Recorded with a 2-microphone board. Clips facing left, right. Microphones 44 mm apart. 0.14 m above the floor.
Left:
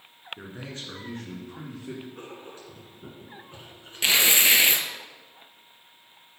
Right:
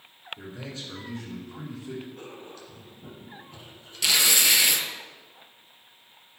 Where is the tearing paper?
30° left (ahead or behind), 0.6 m.